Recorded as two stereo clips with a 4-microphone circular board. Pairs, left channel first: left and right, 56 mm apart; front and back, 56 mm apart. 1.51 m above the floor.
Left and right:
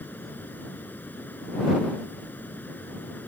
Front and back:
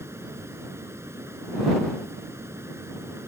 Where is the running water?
145° left.